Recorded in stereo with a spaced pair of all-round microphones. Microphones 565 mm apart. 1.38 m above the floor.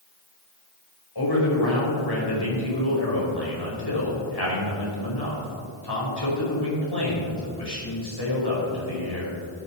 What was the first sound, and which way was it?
A man speaking, 45° left (ahead or behind).